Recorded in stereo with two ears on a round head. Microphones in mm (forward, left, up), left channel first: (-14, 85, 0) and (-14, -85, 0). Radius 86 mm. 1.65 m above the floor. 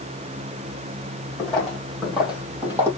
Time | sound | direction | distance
1.4 | footsteps | 5° left (ahead or behind) | 3 m